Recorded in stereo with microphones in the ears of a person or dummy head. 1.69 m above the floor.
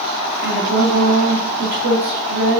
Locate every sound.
0.4 s a woman speaking: 60° right (ahead or behind), 2.5 m